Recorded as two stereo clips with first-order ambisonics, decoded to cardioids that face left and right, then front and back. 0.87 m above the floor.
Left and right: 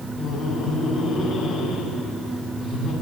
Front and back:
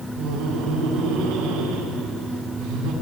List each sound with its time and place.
0.2 s laughter: 150° left, 8 m